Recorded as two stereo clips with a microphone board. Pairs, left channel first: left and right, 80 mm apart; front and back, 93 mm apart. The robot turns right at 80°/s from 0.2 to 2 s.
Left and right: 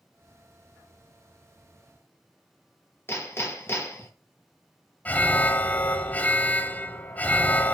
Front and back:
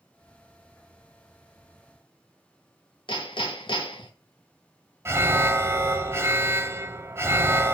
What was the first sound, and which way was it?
Hammering, 30° left.